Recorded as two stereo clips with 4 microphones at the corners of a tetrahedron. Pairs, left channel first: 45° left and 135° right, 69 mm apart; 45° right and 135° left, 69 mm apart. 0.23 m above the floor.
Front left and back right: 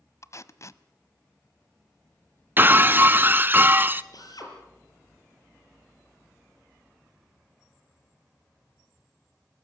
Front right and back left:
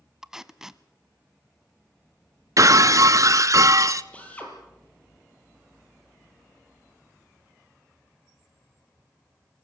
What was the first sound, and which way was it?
Tape being pulled, 55° left.